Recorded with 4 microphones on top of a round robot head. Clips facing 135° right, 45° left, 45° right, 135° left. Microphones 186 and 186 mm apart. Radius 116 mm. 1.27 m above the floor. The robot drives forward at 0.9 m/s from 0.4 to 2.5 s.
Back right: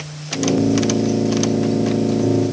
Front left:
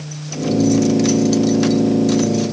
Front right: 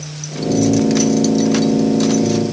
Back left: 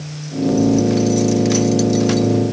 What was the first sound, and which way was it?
Only background noise.